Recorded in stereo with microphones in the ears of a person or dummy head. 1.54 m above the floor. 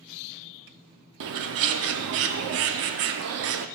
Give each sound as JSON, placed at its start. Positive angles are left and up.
{"t": 1.2, "sound": "a bird", "side_deg": -75, "distance_m": 0.6}